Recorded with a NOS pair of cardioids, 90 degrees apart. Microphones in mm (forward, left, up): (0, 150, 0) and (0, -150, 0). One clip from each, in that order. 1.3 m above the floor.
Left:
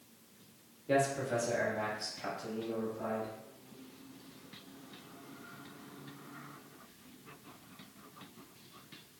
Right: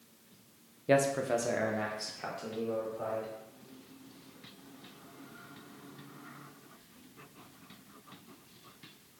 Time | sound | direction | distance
0.9 | a man speaking | 45° right | 0.5 m